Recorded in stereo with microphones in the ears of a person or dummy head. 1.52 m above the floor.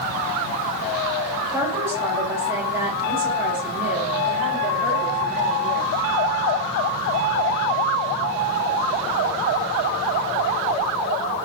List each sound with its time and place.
1.5 s a woman speaking: 15° right (ahead or behind), 4 m; by 5.9 s 5° right (ahead or behind), 6 m